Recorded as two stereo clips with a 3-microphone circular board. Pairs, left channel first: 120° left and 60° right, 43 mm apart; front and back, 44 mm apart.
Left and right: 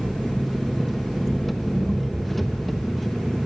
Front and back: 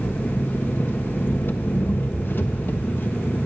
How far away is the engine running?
About 1.3 m.